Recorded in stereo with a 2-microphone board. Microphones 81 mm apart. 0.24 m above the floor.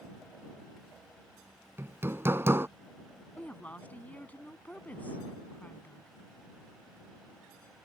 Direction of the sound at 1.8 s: 30° right (ahead or behind).